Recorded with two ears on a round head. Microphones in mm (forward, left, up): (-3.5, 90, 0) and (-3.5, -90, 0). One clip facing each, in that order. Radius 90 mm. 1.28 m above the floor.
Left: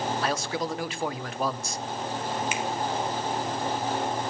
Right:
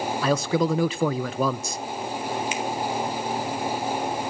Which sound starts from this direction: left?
A finger snap, at 2.5 s.